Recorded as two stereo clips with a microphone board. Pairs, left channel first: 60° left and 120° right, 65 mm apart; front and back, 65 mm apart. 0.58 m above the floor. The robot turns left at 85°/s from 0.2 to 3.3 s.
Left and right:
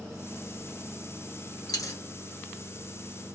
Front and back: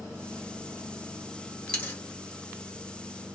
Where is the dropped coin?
75° left, 1.1 m; by 2.0 s 50° left, 1.1 m.